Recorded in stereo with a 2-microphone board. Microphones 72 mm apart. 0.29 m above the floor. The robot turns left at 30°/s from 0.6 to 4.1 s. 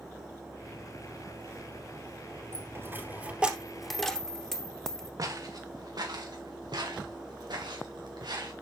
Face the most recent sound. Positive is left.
turn(degrees=-75)  # may be behind; listen again after turning